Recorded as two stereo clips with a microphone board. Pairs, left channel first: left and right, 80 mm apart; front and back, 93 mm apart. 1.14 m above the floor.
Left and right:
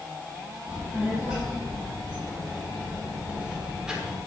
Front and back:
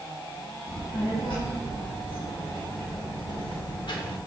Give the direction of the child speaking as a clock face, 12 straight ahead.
1 o'clock.